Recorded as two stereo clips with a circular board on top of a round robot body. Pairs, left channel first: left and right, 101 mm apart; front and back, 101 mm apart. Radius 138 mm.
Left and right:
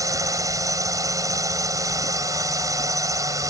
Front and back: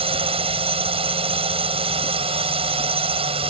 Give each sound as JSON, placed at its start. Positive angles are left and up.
{"t": 0.0, "sound": "a drone", "azimuth_deg": -150}